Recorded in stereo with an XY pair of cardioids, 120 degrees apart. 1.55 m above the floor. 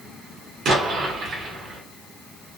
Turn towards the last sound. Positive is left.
turn(degrees=-55)